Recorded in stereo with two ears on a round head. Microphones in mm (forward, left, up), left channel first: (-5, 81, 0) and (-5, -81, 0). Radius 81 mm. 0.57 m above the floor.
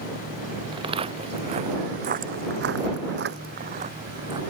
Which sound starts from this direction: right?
Footsteps, at 0.7 s.